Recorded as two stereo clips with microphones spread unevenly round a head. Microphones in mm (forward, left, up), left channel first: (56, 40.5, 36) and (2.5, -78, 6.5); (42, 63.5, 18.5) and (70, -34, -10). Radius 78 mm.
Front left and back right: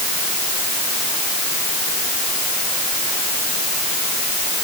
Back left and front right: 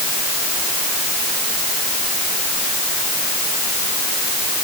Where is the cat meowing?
I don't hear a cat meowing.